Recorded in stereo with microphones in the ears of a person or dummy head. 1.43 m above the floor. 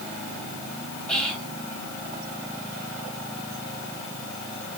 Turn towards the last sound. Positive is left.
turn(degrees=0)  # may be behind; listen again after turning